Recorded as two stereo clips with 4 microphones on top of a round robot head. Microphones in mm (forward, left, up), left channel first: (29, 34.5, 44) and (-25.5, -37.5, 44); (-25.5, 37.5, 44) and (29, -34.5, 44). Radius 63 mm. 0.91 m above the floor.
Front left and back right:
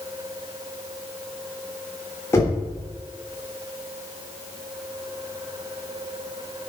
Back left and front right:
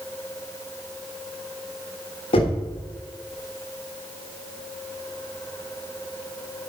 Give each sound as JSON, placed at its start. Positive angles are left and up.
{"t": 2.3, "sound": "knocking", "azimuth_deg": 115, "distance_m": 3.0}